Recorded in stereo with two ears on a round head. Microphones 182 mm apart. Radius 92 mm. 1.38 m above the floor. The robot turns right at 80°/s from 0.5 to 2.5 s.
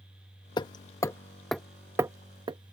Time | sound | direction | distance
0.6 | hammering | 20° left (ahead or behind) | ?